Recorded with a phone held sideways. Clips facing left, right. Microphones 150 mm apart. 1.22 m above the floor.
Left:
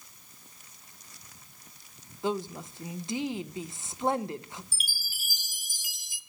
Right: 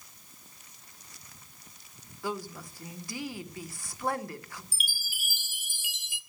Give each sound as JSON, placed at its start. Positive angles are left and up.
{"t": 2.2, "sound": "a woman speaking", "side_deg": 20, "distance_m": 1.0}
{"t": 4.7, "sound": "a chime", "side_deg": 40, "distance_m": 0.9}